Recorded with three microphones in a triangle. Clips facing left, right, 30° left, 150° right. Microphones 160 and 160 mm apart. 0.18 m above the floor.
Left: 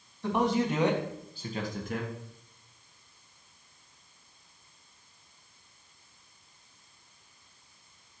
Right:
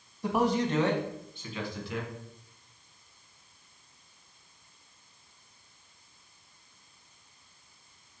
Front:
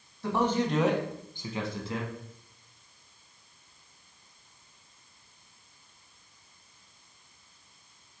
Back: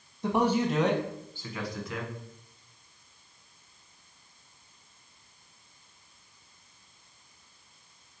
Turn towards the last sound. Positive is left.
turn(degrees=80)